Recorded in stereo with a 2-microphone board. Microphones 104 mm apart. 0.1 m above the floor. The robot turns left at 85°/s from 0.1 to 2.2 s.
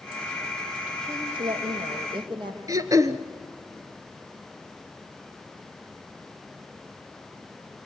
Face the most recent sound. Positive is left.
turn(degrees=-35)  # may be behind; listen again after turning